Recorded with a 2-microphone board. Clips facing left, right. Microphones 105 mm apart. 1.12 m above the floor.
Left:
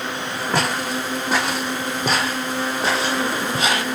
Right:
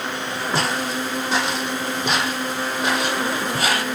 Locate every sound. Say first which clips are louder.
0.5 s footsteps: left 1 dB; 55° left (ahead or behind), 3 m; by 3.9 s 15° left (ahead or behind), 1.9 m